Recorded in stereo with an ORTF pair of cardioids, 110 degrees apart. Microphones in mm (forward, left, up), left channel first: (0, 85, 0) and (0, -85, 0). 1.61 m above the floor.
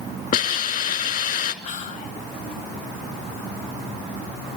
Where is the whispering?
50° left, 1.8 m.